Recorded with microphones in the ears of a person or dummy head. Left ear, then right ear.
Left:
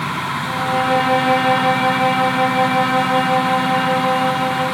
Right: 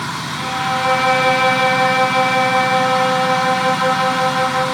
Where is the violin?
50° right (ahead or behind), 5.5 m.